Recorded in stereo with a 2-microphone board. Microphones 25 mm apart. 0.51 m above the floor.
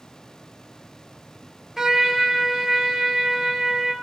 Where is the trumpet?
15° right (ahead or behind), 0.9 m.